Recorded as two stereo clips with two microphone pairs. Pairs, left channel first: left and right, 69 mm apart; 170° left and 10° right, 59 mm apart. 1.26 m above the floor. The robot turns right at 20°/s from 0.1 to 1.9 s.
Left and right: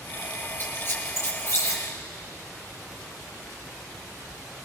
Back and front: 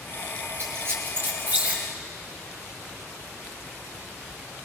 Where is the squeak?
30° left, 4 m; by 1.8 s 55° left, 4 m.